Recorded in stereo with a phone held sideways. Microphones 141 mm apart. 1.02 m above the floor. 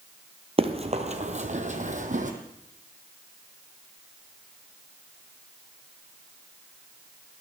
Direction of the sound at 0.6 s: 40° right (ahead or behind).